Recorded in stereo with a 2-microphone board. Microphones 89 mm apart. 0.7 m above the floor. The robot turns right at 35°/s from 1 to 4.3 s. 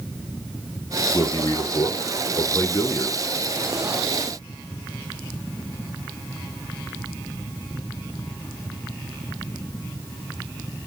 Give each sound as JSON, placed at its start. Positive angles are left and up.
{"t": 1.1, "sound": "a man speaking", "azimuth_deg": 60, "distance_m": 0.6}